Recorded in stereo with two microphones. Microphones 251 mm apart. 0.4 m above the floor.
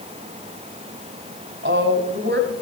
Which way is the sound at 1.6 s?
45° right (ahead or behind).